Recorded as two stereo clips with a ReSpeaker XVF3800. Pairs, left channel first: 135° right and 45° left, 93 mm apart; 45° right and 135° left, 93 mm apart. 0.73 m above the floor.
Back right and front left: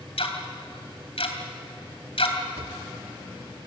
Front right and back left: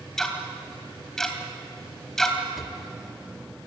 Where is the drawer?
45° left, 1.3 m.